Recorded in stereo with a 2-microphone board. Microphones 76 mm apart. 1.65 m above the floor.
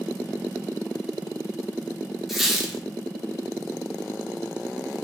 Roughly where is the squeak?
Centre.